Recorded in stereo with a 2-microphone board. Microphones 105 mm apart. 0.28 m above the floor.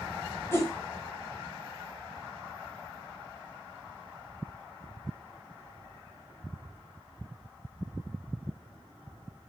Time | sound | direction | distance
0.5 | a whoosh | 20° left (ahead or behind) | 1.1 m